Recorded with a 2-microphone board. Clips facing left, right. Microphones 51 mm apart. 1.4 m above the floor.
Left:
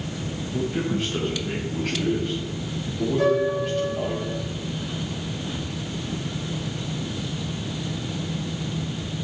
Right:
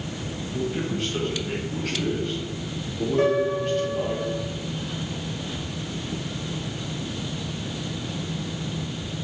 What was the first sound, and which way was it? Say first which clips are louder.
A man speaking: left 2 dB; 15° left (ahead or behind).